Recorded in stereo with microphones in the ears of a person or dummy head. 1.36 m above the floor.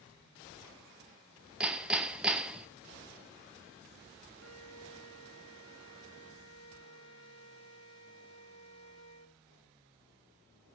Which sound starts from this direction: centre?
Hammering, at 1.6 s.